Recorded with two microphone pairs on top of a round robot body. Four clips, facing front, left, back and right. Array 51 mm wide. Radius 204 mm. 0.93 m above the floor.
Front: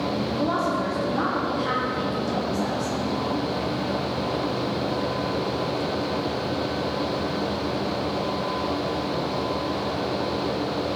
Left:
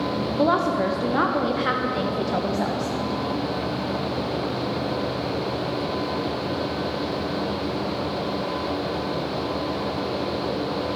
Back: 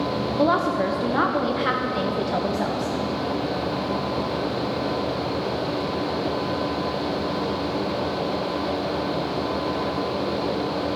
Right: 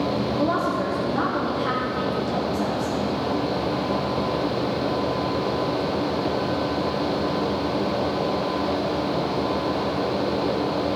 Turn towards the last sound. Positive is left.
turn(degrees=135)